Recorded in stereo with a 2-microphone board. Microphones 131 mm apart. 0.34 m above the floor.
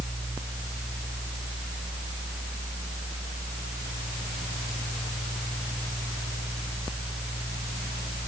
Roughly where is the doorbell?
I don't hear a doorbell.